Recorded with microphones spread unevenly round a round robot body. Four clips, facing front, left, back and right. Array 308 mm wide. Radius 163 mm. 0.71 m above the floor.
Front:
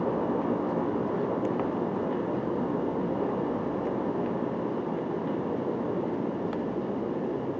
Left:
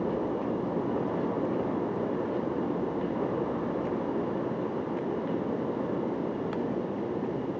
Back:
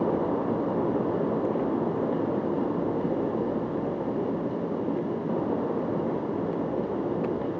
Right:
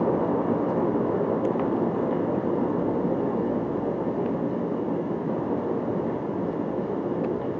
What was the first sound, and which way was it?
Only background noise.